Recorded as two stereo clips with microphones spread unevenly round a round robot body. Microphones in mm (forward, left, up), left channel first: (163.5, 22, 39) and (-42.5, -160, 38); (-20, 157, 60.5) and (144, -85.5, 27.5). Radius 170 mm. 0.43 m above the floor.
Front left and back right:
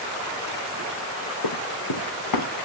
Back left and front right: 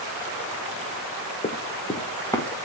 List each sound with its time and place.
1.4 s running footsteps: 60° left, 1.7 m; by 2.5 s 45° left, 2.5 m